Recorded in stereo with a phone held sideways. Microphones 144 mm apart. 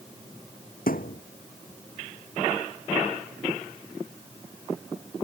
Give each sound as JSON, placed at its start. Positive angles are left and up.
{"t": 0.9, "sound": "a thud", "side_deg": 80}